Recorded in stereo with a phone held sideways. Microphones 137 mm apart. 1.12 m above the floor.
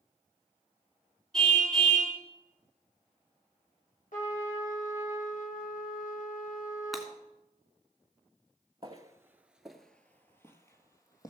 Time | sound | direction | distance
1.3 | a car horn | 5° left (ahead or behind) | 5 m
4.1 | a trumpet | 70° left (ahead or behind) | 2.5 m
6.9 | breaking glass | centre (ahead or behind) | 2.5 m
8.8 | footsteps | 30° right (ahead or behind) | 1.2 m